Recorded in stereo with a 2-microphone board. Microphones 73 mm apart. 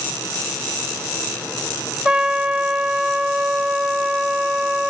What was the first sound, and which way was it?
A trumpet, 10° right (ahead or behind).